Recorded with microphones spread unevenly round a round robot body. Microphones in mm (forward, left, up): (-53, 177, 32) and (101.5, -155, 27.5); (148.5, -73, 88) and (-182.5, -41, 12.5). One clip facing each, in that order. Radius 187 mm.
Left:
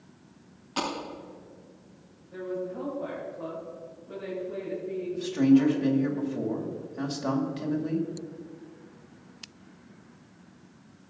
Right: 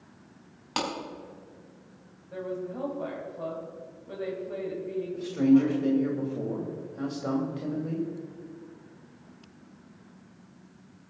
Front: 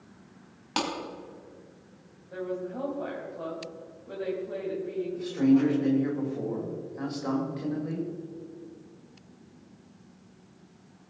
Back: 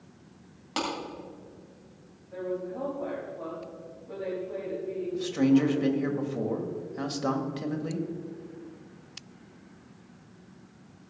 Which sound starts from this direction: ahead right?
A woman speaking, at 2.3 s.